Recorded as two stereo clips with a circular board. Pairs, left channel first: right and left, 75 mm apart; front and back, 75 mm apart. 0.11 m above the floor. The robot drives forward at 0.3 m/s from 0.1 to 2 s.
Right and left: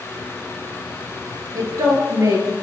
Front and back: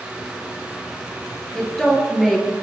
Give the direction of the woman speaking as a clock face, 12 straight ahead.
9 o'clock.